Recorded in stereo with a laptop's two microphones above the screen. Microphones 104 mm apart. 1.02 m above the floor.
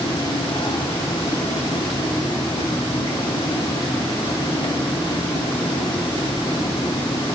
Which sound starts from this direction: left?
A fan, at 0.0 s.